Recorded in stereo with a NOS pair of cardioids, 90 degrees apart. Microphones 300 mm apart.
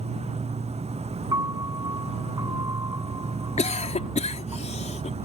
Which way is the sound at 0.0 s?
20° right.